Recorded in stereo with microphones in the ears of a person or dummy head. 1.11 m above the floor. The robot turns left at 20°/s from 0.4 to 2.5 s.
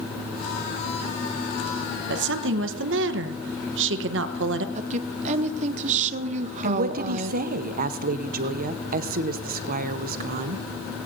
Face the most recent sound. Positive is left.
turn(degrees=-55)  # may be behind; listen again after turning